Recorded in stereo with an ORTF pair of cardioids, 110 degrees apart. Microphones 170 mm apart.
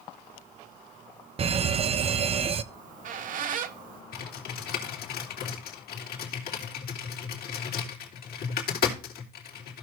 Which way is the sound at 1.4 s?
35° right.